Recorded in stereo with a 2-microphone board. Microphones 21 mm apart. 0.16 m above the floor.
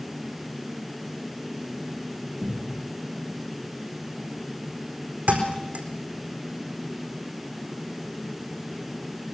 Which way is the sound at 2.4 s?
70° right (ahead or behind).